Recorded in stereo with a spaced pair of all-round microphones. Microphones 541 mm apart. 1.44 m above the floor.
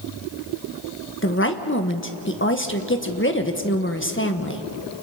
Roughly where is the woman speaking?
Left.